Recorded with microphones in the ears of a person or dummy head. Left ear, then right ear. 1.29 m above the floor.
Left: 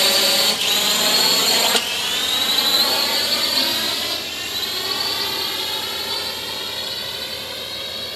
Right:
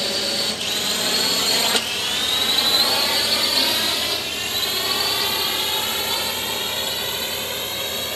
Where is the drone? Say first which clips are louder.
Left 6 dB; 35° left (ahead or behind); by 8.2 s 25° right (ahead or behind).